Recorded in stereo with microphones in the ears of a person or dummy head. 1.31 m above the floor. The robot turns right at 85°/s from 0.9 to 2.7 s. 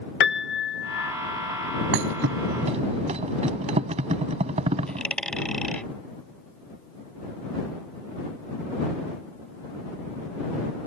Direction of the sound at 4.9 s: 5° left (ahead or behind).